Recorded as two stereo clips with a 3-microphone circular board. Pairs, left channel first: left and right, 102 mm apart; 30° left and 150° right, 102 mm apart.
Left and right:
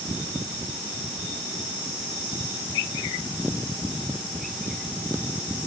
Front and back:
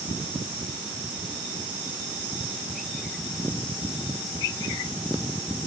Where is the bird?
I don't hear a bird.